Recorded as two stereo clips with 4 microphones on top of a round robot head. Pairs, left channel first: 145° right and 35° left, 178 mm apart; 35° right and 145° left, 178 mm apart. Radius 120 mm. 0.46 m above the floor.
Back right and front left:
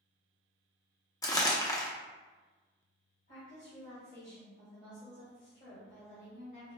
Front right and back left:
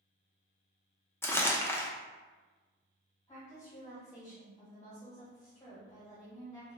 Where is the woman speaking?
110° right, 1.4 m.